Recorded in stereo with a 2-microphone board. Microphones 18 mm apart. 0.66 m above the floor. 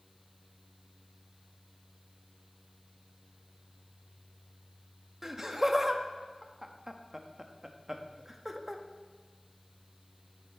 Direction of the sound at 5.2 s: 15° right (ahead or behind).